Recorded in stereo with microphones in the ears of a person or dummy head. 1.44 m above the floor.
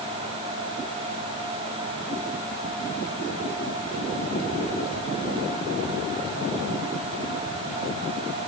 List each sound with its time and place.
Only background noise.